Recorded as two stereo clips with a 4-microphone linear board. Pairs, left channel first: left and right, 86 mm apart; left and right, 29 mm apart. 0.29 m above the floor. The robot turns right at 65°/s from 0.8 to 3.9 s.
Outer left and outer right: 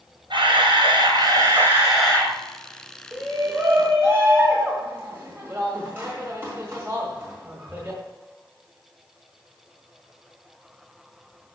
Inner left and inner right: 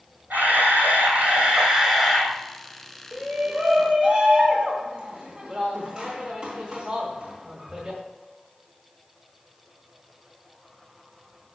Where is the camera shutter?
80° right, 2 m; by 2.4 s 25° left, 2 m.